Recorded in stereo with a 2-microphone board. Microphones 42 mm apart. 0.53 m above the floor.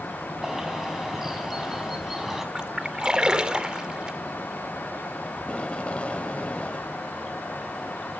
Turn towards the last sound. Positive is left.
turn(degrees=25)  # may be behind; listen again after turning